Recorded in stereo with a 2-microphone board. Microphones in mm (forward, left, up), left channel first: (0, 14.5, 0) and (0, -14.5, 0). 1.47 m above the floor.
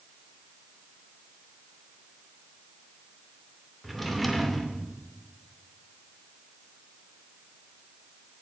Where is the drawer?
Centre (ahead or behind), 2.5 m.